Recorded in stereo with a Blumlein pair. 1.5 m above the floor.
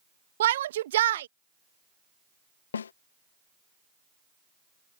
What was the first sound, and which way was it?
A shout, 60° right.